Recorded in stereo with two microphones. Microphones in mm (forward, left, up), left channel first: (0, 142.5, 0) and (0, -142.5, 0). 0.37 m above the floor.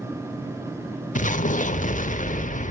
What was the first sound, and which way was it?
An explosion, 30° left (ahead or behind).